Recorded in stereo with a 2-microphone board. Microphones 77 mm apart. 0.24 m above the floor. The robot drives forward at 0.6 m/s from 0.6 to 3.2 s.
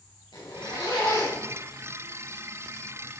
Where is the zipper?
75° left (ahead or behind), 4.5 m; by 1.5 s 70° left (ahead or behind), 4.5 m.